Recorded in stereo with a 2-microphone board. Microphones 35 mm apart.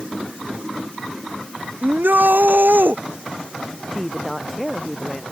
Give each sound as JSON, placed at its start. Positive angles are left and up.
{"t": 1.8, "sound": "a shout", "side_deg": -80}
{"t": 3.9, "sound": "a woman speaking", "side_deg": 0}